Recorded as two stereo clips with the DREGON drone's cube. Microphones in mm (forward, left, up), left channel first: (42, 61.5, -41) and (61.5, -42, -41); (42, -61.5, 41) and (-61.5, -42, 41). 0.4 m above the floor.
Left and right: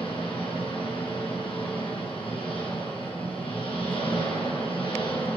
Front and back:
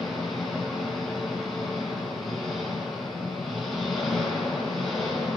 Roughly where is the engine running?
Left.